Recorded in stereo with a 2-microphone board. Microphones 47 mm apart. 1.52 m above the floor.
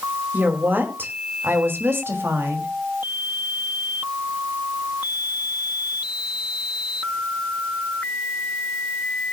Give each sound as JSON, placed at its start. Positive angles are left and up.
{"t": 0.3, "sound": "a woman speaking", "side_deg": -40, "distance_m": 2.5}